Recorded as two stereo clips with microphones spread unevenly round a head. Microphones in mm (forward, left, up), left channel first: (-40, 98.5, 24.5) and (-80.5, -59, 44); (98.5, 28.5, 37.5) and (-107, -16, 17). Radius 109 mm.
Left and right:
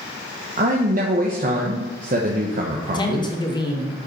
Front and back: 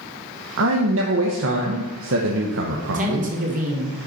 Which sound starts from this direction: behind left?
A man speaking, at 2.9 s.